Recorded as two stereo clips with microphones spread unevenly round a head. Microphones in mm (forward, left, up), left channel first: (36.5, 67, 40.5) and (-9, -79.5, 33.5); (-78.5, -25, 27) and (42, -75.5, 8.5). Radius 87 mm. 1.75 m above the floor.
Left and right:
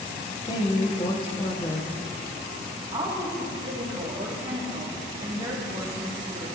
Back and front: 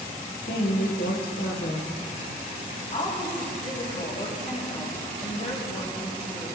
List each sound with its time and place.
0.5 s a woman speaking: 135° left, 1.8 m
2.9 s a woman speaking: 170° right, 3.5 m